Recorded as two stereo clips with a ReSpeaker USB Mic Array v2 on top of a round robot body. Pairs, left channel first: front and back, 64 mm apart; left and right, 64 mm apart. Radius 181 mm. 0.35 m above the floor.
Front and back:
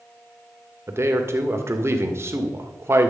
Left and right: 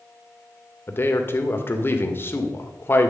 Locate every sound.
0.9 s a man speaking: 140° left, 1.9 m